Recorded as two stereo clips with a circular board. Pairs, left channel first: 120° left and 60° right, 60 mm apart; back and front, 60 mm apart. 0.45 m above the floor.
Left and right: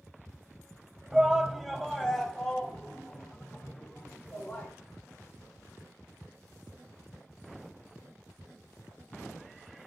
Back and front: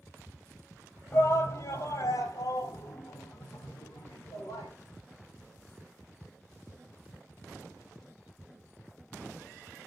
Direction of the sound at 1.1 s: 145° right.